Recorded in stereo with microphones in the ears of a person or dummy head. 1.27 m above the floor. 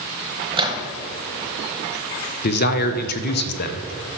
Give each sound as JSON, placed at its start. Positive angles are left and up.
{"t": 0.5, "sound": "a microwave", "side_deg": -25, "distance_m": 1.0}
{"t": 2.4, "sound": "a man speaking", "side_deg": 55, "distance_m": 0.6}